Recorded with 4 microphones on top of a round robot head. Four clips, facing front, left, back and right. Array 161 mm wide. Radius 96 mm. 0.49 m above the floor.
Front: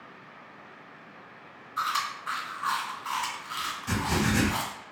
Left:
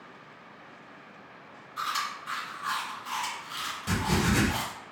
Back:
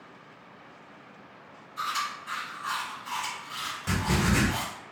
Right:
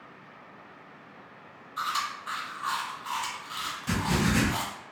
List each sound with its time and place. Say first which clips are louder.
1.8 s chewing: right 1 dB, front 2 dB; 25° right, 1.9 m
3.9 s writing: even, back 1 dB; 150° left, 1.3 m